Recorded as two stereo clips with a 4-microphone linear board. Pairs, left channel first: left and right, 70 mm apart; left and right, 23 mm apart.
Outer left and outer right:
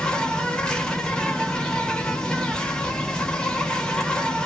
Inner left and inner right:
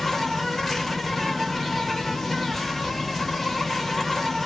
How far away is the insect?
About 0.8 m.